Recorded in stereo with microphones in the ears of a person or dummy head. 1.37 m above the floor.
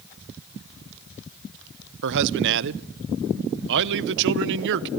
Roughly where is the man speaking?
Right.